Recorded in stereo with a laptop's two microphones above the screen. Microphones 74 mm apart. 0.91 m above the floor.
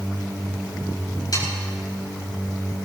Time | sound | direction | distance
1.3 | sawing | 60° left (ahead or behind) | 5.5 m